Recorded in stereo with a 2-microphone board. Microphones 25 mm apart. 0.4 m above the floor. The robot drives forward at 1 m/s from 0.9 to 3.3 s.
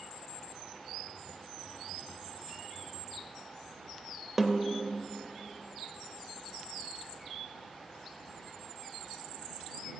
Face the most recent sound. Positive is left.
turn(degrees=-5)  # may be behind; listen again after turning